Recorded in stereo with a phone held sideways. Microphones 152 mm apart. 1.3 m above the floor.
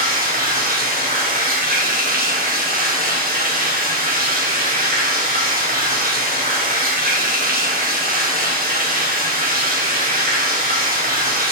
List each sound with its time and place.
0.0 s running water: 75° right (ahead or behind), 1.2 m